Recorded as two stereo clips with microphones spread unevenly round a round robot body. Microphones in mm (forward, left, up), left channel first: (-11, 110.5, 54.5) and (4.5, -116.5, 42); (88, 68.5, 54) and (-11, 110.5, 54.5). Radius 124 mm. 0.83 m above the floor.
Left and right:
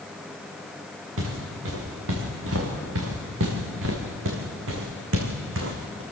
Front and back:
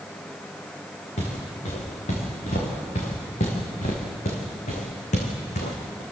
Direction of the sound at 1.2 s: 55° right.